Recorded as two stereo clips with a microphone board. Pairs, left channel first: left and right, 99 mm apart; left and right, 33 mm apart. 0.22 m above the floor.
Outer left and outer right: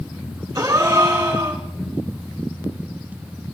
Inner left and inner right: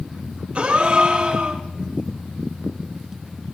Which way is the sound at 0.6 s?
35° right (ahead or behind).